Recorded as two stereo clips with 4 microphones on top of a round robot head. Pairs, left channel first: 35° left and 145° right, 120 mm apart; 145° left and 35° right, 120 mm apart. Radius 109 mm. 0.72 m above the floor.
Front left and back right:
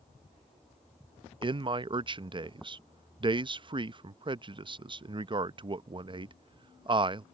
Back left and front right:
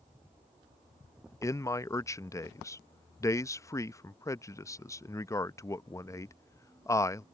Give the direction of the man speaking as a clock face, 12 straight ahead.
5 o'clock.